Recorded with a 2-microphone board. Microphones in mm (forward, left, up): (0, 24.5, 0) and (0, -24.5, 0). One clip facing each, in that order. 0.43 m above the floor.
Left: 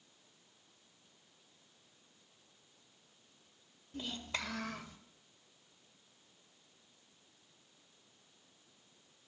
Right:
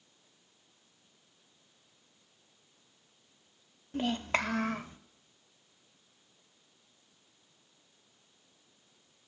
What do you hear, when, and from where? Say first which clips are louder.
3.9 s a child speaking: right 10 dB; 55° right (ahead or behind), 0.8 m; by 5.0 s 35° right (ahead or behind), 1.1 m